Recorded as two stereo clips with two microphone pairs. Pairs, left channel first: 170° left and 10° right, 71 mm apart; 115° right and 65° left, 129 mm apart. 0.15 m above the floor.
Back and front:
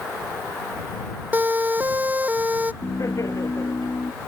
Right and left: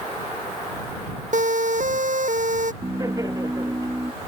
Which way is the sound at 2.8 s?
125° left.